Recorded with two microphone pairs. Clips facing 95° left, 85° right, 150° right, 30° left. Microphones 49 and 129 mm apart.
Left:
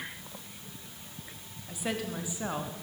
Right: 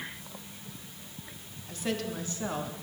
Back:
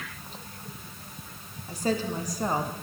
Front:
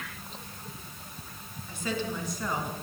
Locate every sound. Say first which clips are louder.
1.7 s a woman speaking: right 1 dB, back 5 dB; 175° left, 1.5 m